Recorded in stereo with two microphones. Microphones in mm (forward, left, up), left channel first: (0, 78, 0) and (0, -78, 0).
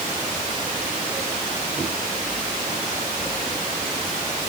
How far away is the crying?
I don't hear crying.